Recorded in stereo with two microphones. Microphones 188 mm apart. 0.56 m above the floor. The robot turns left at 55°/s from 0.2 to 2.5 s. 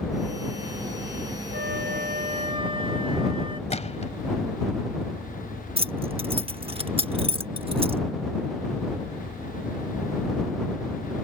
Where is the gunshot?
35° left (ahead or behind).